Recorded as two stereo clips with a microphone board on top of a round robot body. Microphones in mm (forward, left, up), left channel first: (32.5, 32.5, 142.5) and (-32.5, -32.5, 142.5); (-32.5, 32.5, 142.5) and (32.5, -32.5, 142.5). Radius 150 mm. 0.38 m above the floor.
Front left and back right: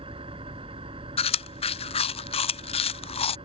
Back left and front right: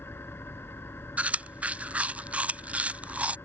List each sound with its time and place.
0.0 s an engine running: 155° right
1.2 s chewing: 30° left